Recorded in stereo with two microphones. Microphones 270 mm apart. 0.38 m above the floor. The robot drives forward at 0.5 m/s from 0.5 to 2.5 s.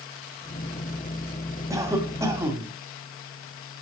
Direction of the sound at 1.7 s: 10° right (ahead or behind).